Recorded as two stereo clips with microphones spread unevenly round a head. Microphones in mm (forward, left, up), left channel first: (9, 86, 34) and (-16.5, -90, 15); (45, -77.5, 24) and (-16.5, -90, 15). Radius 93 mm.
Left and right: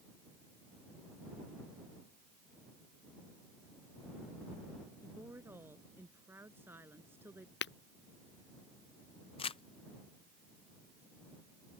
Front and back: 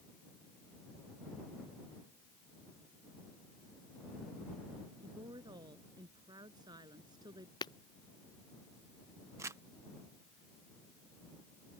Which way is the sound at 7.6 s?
50° left.